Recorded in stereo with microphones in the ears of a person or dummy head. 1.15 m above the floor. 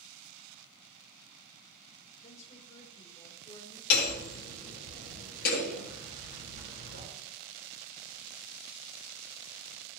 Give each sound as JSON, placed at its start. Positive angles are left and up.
{"t": 2.2, "sound": "a woman speaking", "side_deg": 40, "distance_m": 3.0}
{"t": 3.9, "sound": "hammering", "side_deg": 55, "distance_m": 4.5}